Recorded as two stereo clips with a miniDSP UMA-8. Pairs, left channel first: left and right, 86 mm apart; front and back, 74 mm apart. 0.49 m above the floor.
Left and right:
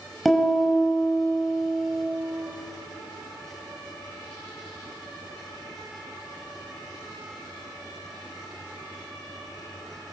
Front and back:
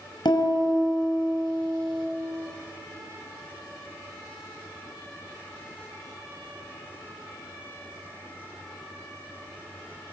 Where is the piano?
Straight ahead, 6 m.